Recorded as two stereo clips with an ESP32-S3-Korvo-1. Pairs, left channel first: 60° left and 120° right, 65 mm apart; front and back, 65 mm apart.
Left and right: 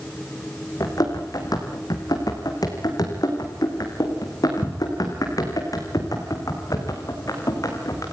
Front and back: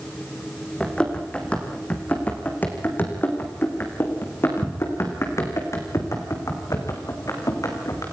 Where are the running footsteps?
75° left, 4 m; by 8.0 s 30° left, 5.5 m.